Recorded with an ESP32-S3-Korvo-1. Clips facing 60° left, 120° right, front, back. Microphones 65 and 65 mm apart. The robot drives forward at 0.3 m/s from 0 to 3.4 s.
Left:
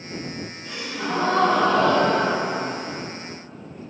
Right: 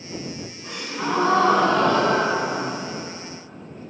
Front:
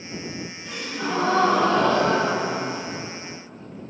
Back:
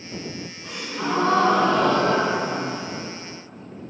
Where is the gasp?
155° right, 2.0 m; by 3.0 s 160° right, 2.5 m.